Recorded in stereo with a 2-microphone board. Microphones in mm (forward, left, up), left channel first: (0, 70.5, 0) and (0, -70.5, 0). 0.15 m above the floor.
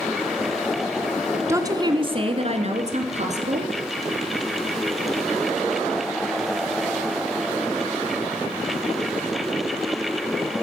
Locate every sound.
1.5 s a woman speaking: 20° right (ahead or behind), 1.2 m; by 3.7 s 60° right (ahead or behind), 3 m